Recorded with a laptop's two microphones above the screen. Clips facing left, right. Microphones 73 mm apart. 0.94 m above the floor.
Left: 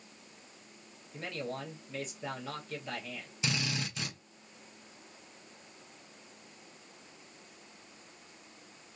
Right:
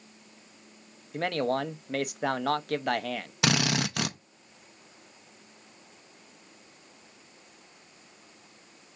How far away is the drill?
About 0.7 m.